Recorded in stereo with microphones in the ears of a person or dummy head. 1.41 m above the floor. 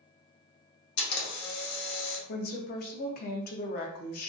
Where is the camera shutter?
70° left (ahead or behind), 1.0 m.